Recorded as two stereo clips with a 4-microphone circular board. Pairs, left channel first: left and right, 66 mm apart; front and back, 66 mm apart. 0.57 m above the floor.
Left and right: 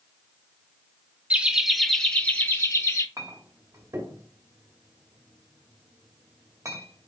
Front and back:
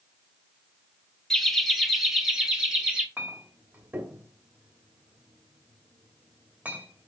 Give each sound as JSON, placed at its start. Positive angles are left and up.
{"t": 1.3, "sound": "laughter", "azimuth_deg": -75, "distance_m": 1.1}
{"t": 3.2, "sound": "a clink", "azimuth_deg": -120, "distance_m": 1.9}